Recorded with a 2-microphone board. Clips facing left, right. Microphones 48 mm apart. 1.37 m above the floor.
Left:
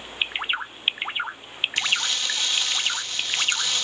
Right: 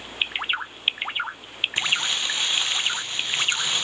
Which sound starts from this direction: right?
Crumpling, at 1.8 s.